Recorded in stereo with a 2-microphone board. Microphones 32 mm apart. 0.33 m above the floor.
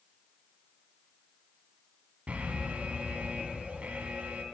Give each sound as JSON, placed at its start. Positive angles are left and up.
{"t": 2.3, "sound": "an alarm", "side_deg": -45, "distance_m": 1.5}